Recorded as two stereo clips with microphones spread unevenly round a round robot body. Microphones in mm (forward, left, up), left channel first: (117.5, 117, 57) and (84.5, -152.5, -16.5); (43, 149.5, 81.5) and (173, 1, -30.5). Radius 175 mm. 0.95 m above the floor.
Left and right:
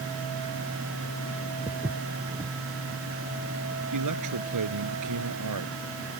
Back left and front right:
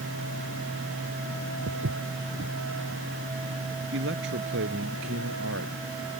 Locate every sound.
1.7 s footsteps: 25° right
3.9 s a man speaking: 95° right